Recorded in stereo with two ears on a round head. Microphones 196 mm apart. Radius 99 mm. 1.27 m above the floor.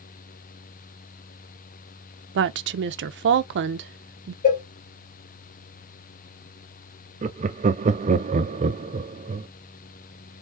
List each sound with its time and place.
2.4 s a woman speaking: 55° right (ahead or behind), 0.5 m
4.4 s a cowbell: 45° left (ahead or behind), 2 m
7.2 s laughter: 30° right (ahead or behind), 0.5 m